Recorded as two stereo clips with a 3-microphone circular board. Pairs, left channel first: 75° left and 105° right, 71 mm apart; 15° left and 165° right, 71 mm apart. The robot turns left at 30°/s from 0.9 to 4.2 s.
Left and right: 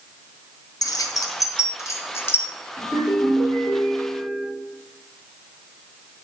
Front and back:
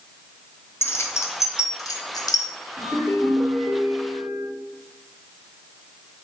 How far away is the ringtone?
About 2.5 m.